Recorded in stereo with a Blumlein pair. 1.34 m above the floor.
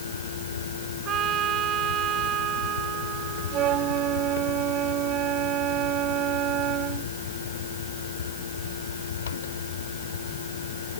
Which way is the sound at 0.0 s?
65° left.